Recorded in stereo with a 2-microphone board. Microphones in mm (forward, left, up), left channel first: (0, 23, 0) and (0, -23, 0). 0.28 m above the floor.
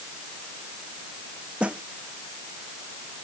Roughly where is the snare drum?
Right.